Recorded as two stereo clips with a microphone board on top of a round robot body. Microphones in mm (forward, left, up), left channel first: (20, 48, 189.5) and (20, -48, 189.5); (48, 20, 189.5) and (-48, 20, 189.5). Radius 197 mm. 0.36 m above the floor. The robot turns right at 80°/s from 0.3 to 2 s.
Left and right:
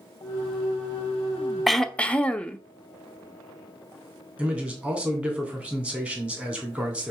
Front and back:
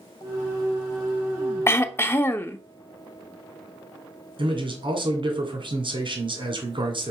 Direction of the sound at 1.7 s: Straight ahead.